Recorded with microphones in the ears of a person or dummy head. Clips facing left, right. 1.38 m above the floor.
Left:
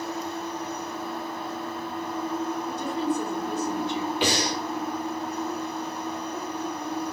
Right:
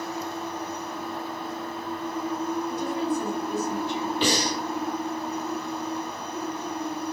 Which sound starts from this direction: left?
A woman speaking, at 2.7 s.